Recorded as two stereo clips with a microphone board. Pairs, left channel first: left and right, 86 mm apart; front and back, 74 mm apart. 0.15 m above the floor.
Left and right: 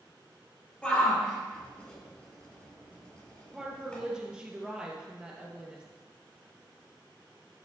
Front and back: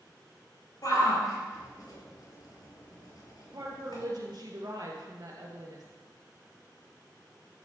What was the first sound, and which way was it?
A shout, 15° left.